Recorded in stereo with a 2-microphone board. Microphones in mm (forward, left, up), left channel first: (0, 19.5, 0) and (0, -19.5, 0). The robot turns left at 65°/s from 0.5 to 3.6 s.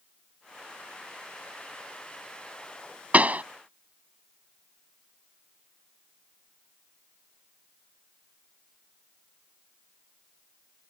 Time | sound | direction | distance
3.1 | a pop | 40° right (ahead or behind) | ?